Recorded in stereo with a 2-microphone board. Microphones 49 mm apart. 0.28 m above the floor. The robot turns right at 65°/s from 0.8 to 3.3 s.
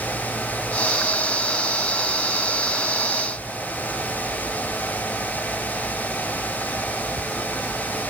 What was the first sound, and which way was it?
Only background noise.